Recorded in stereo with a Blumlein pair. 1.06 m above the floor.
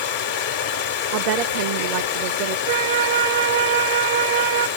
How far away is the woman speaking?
About 0.6 m.